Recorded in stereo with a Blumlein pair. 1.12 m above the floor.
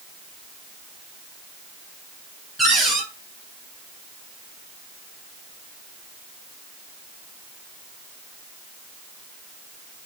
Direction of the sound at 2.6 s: 10° right.